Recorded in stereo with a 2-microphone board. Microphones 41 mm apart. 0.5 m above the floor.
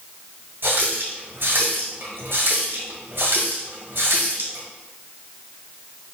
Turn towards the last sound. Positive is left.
turn(degrees=-60)  # may be behind; listen again after turning